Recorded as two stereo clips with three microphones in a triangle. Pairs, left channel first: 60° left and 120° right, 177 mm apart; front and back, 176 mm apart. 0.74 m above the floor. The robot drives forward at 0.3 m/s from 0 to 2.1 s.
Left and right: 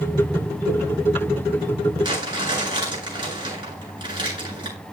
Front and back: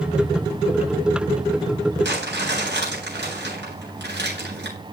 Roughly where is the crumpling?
Behind.